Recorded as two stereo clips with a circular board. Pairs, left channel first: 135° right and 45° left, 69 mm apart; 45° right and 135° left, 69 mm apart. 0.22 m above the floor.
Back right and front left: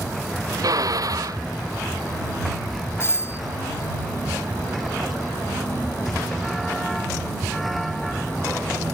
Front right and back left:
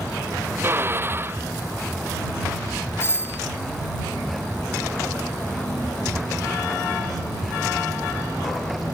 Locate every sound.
0.6 s a drill: 75° left
3.0 s a doorbell: 90° right